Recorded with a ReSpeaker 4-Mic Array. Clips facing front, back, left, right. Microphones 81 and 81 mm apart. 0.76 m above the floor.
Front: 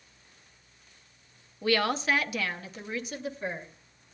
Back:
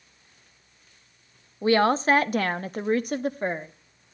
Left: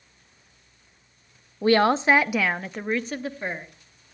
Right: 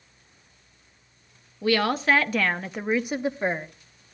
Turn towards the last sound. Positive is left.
turn(degrees=-150)